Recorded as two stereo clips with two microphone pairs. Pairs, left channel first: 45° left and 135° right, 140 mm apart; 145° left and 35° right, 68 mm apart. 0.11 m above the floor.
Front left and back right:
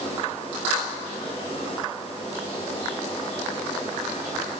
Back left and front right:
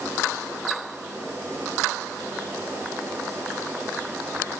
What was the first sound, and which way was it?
Only background noise.